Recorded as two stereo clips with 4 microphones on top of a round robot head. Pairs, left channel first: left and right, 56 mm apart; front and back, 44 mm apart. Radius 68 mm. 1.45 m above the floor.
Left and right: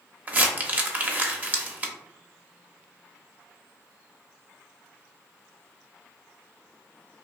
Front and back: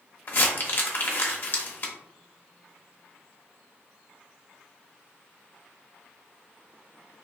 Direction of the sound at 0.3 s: 30° right.